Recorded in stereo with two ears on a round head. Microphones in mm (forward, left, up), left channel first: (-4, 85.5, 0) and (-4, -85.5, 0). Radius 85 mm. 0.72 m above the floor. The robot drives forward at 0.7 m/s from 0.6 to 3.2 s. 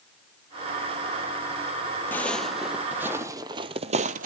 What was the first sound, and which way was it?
Footsteps, 10° left (ahead or behind).